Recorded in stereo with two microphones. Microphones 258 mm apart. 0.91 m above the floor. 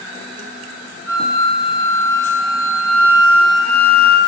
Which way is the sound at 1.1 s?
55° right (ahead or behind).